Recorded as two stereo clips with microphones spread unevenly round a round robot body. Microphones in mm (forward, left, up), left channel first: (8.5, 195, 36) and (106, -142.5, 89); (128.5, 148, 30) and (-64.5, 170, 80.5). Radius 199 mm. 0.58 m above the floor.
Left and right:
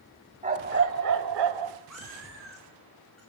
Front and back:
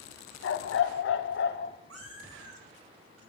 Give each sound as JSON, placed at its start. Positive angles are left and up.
{"t": 0.4, "sound": "a dog barking", "azimuth_deg": -5, "distance_m": 1.9}
{"t": 1.9, "sound": "a cat meowing", "azimuth_deg": -165, "distance_m": 5.0}